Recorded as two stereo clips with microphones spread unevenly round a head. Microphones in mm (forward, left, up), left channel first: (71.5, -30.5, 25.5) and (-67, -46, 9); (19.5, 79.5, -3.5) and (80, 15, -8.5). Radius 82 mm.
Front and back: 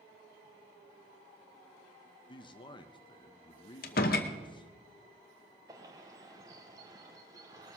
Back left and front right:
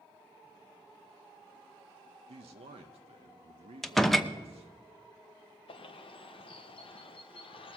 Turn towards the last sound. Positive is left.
turn(degrees=115)